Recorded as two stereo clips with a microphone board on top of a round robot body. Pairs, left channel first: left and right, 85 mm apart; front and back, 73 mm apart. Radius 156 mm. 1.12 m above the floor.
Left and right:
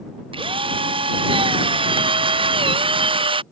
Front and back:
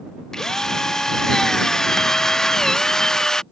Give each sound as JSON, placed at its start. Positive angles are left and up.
{"t": 0.3, "sound": "a drill", "azimuth_deg": -80}